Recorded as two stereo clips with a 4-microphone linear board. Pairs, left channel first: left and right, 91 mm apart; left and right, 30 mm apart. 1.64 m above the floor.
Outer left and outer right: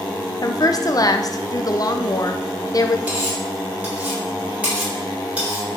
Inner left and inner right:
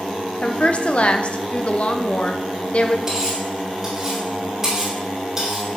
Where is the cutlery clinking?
15° right (ahead or behind), 3.5 m.